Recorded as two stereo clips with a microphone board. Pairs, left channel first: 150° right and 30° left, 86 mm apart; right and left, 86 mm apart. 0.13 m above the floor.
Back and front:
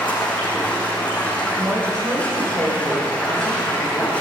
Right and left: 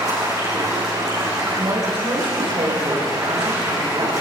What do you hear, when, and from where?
0.0 s running water: 135° left, 4.5 m
1.6 s a woman speaking: 75° left, 4.5 m